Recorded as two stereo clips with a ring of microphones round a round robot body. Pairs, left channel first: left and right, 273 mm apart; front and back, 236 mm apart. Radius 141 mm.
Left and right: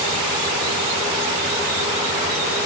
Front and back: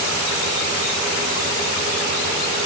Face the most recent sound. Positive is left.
No sound to turn to.